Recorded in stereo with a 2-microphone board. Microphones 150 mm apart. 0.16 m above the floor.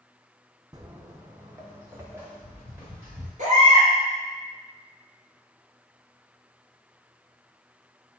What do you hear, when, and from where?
0.7 s footsteps: 25° right (ahead or behind), 0.6 m; by 3.3 s 15° right (ahead or behind), 2 m
3.4 s a baby crying: 55° right (ahead or behind), 2 m